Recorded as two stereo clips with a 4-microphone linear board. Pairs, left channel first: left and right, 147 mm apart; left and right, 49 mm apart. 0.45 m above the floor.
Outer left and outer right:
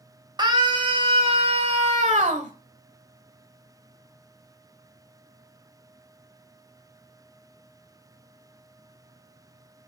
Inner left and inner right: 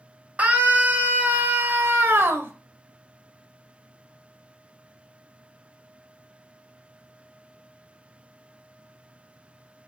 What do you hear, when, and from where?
0.4 s a scream: 30° right (ahead or behind), 1.8 m; by 2.5 s 60° right (ahead or behind), 1.5 m